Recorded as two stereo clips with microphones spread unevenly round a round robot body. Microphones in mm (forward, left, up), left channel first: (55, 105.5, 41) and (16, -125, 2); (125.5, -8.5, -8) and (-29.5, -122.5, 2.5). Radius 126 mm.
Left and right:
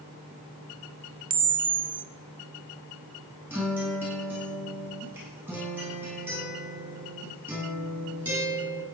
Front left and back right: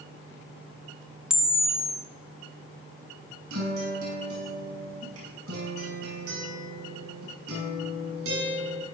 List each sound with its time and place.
1.3 s a camera shutter: 55° right, 1.1 m
3.5 s a guitar: straight behind, 7 m